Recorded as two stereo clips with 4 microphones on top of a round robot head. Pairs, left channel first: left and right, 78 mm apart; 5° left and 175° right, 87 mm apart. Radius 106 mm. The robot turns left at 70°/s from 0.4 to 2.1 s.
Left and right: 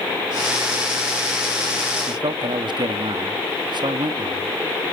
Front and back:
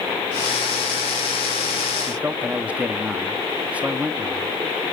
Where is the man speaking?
100° right, 1.4 m.